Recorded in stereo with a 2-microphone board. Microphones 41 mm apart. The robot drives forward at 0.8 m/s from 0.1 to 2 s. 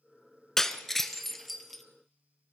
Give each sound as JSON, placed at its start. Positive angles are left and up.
{"t": 0.6, "sound": "breaking glass", "side_deg": 10, "distance_m": 0.8}